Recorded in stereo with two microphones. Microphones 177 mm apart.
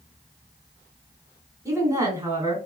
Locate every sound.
1.6 s a woman speaking: 20° right (ahead or behind), 1.2 m